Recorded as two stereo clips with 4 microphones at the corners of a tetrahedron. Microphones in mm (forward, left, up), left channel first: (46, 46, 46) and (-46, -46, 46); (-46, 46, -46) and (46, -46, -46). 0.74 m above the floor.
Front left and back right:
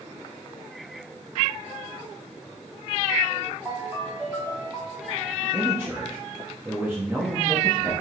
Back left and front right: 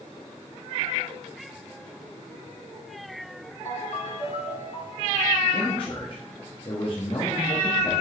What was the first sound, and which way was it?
A ringtone, 155° left.